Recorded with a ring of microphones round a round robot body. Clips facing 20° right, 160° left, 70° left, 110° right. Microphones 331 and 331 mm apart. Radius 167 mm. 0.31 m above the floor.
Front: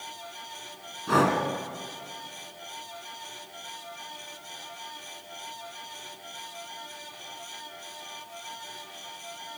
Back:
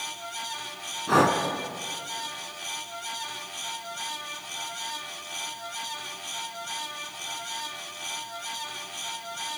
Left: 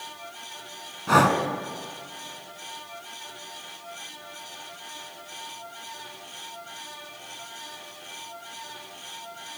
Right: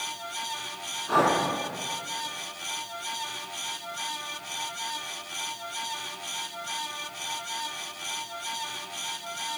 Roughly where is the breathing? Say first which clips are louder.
Back 1 dB, left 3 dB; ahead left.